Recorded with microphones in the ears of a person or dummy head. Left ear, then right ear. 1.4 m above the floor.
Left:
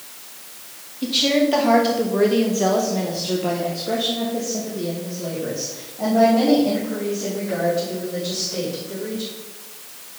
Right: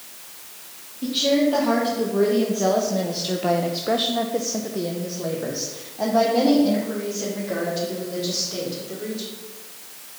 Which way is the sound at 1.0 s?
35° left (ahead or behind).